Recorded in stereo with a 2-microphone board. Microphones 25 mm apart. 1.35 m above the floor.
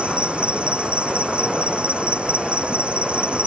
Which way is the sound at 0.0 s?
55° right (ahead or behind).